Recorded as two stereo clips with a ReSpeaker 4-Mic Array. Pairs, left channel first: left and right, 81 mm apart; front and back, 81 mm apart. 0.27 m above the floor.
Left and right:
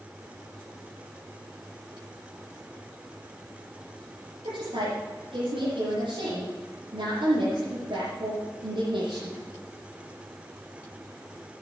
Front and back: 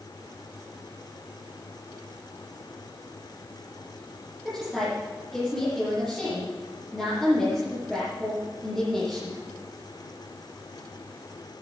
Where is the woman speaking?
85° right, 6 m.